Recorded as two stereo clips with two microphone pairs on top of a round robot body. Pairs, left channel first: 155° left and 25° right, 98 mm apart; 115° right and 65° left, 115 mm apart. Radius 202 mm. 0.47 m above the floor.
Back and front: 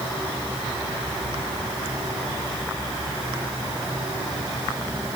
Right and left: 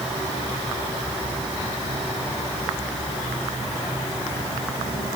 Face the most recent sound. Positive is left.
No sound to turn to.